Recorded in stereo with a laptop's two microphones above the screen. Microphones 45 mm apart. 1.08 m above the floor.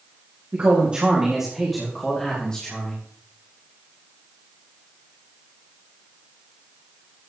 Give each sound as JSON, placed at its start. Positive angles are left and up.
{"t": 0.5, "sound": "a man speaking", "side_deg": -40, "distance_m": 2.5}